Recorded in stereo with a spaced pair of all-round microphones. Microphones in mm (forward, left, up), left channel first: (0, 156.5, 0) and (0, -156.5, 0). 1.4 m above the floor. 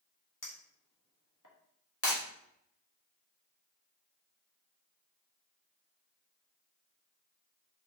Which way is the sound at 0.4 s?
70° left (ahead or behind).